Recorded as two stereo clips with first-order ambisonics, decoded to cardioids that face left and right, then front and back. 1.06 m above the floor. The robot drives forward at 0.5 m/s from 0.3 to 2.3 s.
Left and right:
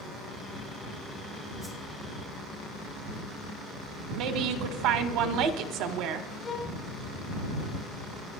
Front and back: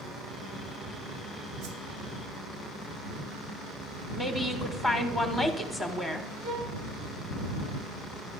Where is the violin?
160° left, 8.5 m.